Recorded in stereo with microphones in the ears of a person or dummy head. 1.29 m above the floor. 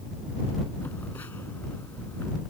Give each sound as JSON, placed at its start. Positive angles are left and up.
{"t": 0.8, "sound": "a phone buzzing", "side_deg": 10}